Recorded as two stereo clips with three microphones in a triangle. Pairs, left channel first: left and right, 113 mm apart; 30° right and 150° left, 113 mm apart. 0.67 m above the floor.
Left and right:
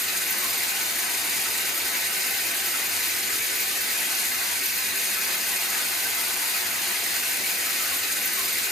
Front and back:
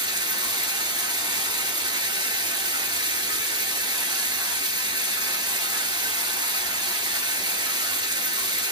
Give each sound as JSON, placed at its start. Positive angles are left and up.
{"t": 0.0, "sound": "running water", "azimuth_deg": 180, "distance_m": 0.8}